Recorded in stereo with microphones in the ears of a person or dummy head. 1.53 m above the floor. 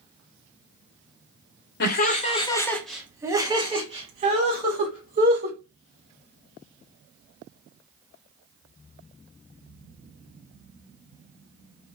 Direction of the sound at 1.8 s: 50° left (ahead or behind).